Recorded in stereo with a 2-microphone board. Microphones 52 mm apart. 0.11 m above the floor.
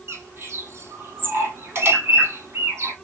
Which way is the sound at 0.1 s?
50° right (ahead or behind).